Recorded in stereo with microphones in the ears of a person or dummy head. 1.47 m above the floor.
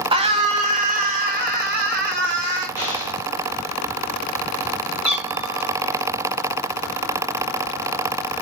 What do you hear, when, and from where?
0.1 s a scream: 30° right (ahead or behind), 2 m; by 2.7 s 65° right (ahead or behind), 4 m
2.8 s an explosion: 40° right (ahead or behind), 7 m
5.0 s a cat meowing: 5° right (ahead or behind), 5 m